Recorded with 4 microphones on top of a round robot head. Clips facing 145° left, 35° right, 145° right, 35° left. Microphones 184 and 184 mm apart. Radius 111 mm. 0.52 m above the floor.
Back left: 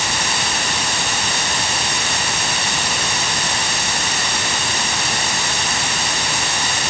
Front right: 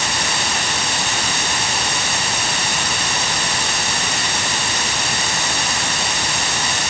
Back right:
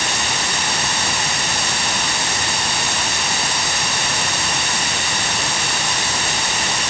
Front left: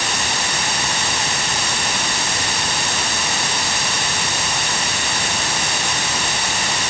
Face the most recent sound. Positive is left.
No sound to turn to.